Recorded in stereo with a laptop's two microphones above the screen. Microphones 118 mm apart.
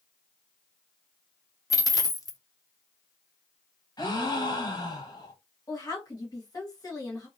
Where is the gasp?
35° left (ahead or behind), 0.8 m.